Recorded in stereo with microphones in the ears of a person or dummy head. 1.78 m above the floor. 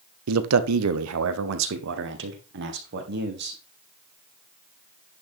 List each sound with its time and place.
0.3 s a man speaking: 90° right, 1.0 m; by 3.6 s 50° right (ahead or behind), 2.5 m